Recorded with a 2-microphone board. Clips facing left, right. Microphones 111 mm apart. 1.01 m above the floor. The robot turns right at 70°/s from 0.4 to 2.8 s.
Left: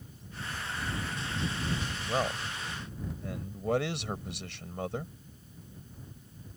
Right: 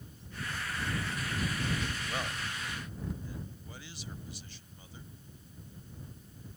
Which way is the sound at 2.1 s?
30° left.